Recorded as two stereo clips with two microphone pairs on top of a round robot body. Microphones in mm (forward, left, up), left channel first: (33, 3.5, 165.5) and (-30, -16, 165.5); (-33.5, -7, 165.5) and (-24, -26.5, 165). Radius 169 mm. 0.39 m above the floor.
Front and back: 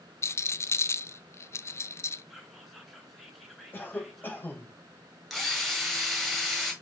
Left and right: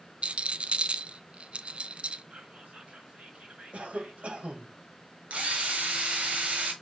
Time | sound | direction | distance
0.2 | a rattle | 35° right | 0.5 m
2.3 | whispering | 75° right | 3 m
3.7 | a cough | 45° right | 2.5 m
5.3 | a drill | 75° right | 2.5 m